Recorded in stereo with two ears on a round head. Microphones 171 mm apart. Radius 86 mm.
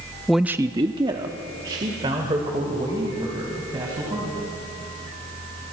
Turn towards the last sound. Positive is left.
turn(degrees=-25)  # may be behind; listen again after turning